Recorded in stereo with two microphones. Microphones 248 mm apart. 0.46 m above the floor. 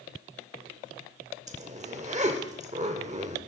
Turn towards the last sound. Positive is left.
turn(degrees=-30)  # may be behind; listen again after turning